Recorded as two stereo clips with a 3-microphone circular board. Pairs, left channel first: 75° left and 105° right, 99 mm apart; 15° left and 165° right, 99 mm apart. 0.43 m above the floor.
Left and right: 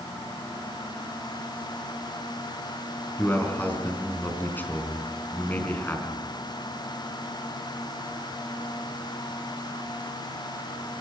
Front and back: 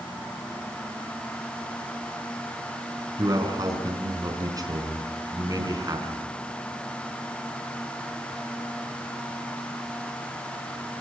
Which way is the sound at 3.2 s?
145° left.